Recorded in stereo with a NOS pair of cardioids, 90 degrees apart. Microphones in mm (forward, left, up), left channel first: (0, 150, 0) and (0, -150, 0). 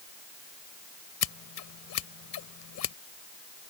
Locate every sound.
1.2 s scissors: 60° left